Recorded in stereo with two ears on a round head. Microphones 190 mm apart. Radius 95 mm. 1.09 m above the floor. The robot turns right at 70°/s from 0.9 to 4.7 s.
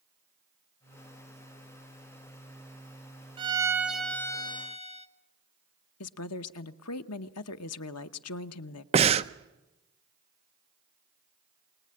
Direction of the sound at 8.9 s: 30° right (ahead or behind).